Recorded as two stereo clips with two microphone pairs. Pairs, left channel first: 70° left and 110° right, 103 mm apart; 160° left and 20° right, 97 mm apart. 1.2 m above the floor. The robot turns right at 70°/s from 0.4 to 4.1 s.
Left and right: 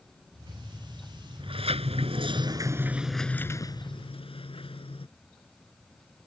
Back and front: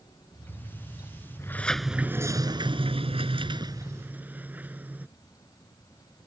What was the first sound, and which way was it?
A sliding door, 140° right.